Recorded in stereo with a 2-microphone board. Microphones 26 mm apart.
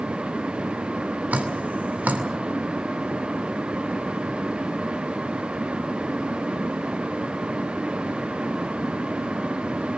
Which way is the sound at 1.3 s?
85° right.